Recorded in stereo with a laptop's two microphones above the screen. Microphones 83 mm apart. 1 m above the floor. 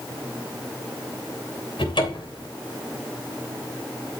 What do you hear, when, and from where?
1.8 s a cupboard door: 70° left (ahead or behind), 3 m